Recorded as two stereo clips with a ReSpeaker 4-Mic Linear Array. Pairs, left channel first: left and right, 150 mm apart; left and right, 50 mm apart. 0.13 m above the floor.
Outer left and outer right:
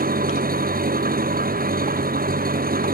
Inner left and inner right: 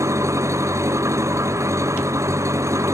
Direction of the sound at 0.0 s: 80° right.